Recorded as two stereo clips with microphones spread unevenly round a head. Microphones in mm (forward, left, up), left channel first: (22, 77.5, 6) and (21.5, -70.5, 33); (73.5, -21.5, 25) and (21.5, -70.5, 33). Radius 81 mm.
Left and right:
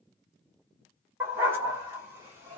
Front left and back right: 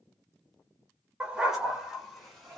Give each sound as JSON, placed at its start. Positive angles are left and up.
{"t": 1.2, "sound": "a dog barking", "azimuth_deg": -95, "distance_m": 1.2}